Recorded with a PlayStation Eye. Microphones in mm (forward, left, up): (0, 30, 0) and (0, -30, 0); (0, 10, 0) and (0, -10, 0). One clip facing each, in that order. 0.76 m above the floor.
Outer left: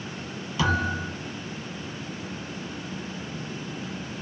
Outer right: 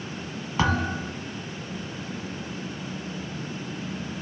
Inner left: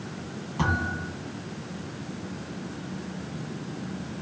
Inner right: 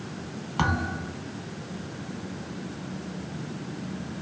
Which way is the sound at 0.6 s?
40° right (ahead or behind).